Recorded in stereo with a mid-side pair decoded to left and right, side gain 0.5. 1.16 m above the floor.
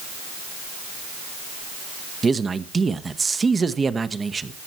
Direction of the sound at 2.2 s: 30° right.